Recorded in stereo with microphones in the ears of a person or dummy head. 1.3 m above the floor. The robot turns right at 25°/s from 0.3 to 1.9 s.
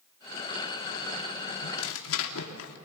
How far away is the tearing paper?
About 3 m.